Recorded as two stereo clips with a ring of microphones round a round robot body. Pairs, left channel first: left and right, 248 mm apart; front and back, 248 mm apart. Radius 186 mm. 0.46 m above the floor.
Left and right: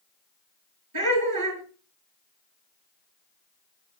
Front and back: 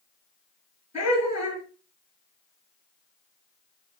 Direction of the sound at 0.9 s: 90° right.